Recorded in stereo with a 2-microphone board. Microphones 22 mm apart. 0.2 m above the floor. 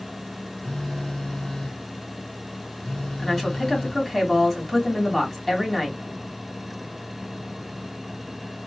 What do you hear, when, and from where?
0.6 s a phone buzzing: 40° left (ahead or behind), 0.7 m
3.2 s a woman speaking: 5° left (ahead or behind), 1.5 m